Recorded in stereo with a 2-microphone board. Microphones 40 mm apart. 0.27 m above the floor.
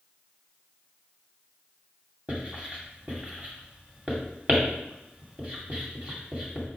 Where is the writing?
30° right (ahead or behind), 2 m.